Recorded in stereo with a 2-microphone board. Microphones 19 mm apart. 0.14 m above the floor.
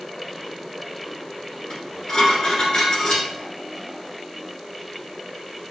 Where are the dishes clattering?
45° left (ahead or behind), 1.3 m.